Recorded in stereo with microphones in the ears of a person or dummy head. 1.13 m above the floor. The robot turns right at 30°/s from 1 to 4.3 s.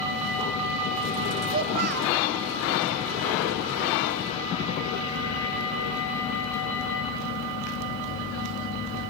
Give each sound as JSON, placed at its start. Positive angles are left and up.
{"t": 1.5, "sound": "a child speaking", "side_deg": -35, "distance_m": 1.3}